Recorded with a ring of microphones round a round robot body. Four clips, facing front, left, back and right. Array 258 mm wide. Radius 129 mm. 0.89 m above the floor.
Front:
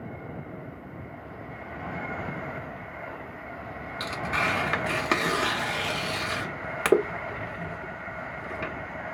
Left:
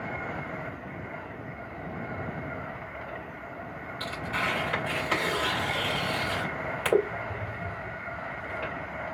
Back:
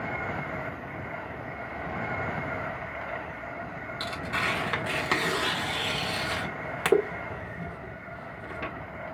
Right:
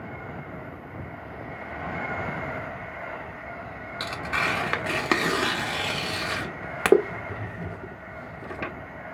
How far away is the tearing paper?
About 1.4 m.